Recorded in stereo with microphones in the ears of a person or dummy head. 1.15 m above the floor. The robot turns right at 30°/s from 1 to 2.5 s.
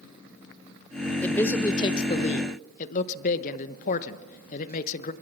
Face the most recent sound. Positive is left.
turn(degrees=45)